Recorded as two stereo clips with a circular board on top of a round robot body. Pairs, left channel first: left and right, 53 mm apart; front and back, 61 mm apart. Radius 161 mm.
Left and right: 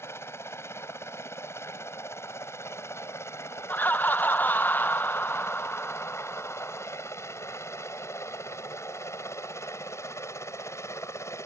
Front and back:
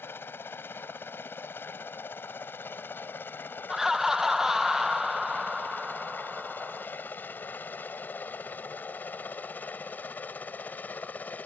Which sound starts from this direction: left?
Laughter, at 3.7 s.